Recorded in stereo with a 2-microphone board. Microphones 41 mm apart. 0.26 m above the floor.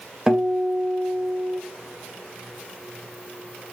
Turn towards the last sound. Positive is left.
turn(degrees=-20)  # may be behind; listen again after turning